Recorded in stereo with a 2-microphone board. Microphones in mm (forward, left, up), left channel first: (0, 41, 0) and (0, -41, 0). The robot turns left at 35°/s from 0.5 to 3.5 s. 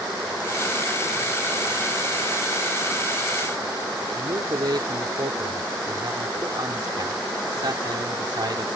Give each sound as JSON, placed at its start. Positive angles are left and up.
{"t": 4.2, "sound": "a man speaking", "side_deg": -55}